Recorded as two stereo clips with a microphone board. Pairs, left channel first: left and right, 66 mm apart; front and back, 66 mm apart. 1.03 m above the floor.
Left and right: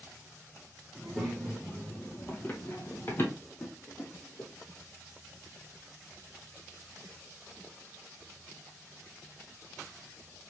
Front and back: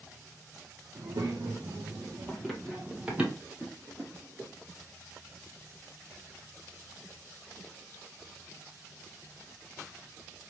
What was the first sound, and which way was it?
A child speaking, 165° right.